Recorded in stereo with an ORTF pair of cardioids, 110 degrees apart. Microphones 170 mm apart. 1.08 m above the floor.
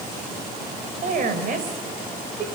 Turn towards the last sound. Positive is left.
turn(degrees=-50)